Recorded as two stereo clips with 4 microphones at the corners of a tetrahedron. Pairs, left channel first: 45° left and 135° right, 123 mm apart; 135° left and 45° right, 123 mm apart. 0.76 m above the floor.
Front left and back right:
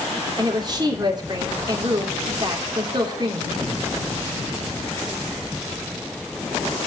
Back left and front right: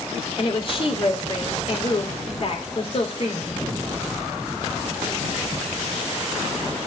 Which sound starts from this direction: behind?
A woman speaking, at 0.4 s.